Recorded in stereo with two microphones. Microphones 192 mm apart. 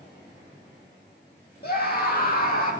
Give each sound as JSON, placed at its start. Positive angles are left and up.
{"t": 1.6, "sound": "a scream", "side_deg": 55, "distance_m": 4.5}